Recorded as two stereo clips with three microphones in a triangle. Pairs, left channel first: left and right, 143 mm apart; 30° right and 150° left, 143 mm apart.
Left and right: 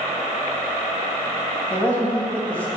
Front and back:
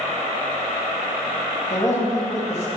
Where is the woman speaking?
20° left, 1.6 m.